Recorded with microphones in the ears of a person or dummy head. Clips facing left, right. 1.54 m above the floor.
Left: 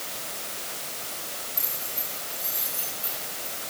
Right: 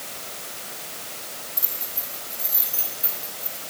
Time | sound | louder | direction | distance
1.6 | keys jangling | left 1 dB | 15° right (ahead or behind) | 8 m